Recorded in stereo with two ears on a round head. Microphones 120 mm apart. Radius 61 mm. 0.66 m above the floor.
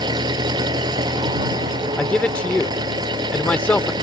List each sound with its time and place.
0.0 s an engine running: 30° right (ahead or behind)
2.0 s a man speaking: 10° left (ahead or behind)